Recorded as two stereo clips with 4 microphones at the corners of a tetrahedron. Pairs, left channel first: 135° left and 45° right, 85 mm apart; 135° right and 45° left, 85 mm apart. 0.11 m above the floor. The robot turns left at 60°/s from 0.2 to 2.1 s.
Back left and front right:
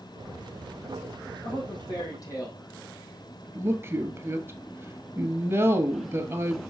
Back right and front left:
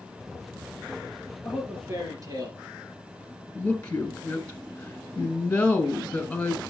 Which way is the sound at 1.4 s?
130° left.